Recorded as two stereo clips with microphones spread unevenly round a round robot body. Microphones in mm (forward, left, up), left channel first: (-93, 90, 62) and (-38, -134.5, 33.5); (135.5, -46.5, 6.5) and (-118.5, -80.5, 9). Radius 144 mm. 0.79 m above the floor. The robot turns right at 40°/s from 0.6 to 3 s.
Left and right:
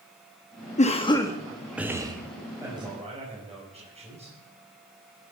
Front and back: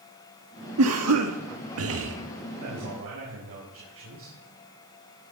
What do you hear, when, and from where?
0.8 s a cough: 165° left, 1.6 m; by 2.2 s 140° right, 1.6 m
2.6 s a man speaking: 155° right, 6 m; by 4.4 s 140° right, 6 m